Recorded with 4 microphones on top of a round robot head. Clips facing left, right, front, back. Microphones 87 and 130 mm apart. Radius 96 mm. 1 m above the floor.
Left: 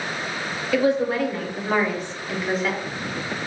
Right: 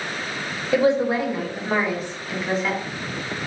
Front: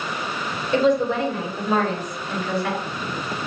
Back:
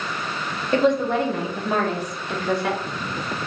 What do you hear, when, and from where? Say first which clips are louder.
0.7 s a woman speaking: right 2 dB, even; 145° right, 1.2 m; by 2.8 s 175° left, 2.0 m